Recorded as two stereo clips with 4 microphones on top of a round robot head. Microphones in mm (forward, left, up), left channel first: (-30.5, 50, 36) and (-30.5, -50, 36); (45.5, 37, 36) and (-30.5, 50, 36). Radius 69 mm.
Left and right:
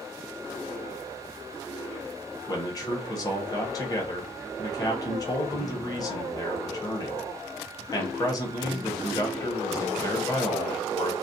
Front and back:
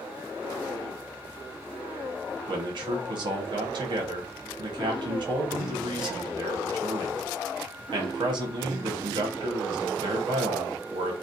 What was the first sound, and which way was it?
A man speaking, 145° left.